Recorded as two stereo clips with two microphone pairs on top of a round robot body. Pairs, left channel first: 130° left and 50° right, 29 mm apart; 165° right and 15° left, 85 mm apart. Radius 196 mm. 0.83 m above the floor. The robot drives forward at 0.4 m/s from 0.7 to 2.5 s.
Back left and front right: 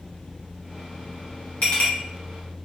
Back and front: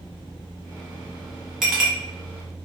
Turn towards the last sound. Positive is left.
turn(degrees=110)